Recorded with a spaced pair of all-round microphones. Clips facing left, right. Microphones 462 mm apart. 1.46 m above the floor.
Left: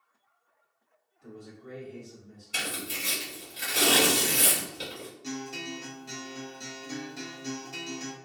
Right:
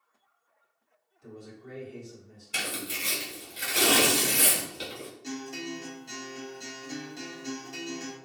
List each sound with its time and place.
1.2 s a man speaking: 70° left (ahead or behind), 1.5 m
2.5 s tearing paper: 20° right (ahead or behind), 1.3 m
5.2 s a guitar: 25° left (ahead or behind), 0.6 m